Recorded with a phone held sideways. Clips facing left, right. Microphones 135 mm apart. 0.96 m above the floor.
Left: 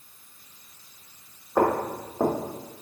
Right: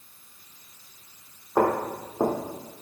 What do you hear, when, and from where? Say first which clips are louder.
1.6 s footsteps: even; 10° right (ahead or behind), 1.5 m